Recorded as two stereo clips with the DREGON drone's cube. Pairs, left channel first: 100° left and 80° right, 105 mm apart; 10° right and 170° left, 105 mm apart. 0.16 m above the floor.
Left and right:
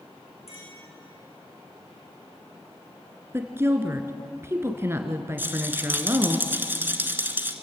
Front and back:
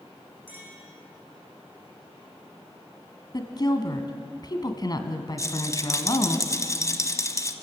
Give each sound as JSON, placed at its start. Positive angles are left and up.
{"t": 0.5, "sound": "a clink", "azimuth_deg": 100, "distance_m": 7.0}
{"t": 3.3, "sound": "a woman speaking", "azimuth_deg": -25, "distance_m": 2.0}
{"t": 5.4, "sound": "a rattle", "azimuth_deg": -30, "distance_m": 1.2}